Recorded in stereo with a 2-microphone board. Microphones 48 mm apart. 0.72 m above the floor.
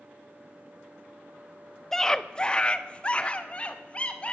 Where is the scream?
10° left (ahead or behind), 0.7 m; by 4.3 s 30° left (ahead or behind), 2.5 m.